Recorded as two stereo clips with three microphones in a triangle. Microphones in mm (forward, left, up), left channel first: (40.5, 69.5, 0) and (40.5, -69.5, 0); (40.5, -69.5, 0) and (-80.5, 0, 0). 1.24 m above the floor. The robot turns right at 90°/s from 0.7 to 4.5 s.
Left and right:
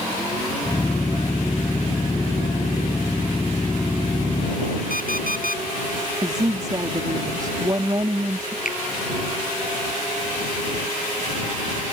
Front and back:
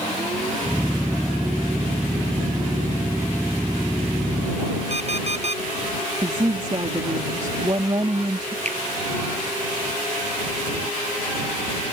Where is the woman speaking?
150° right.